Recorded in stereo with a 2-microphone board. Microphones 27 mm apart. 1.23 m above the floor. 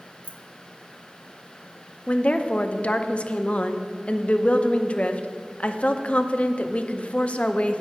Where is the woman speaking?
60° left (ahead or behind), 0.6 m.